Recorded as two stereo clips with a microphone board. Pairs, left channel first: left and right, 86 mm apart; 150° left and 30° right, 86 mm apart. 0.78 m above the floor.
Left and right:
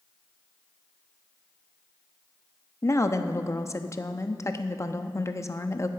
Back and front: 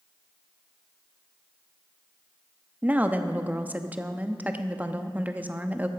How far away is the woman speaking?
About 0.7 m.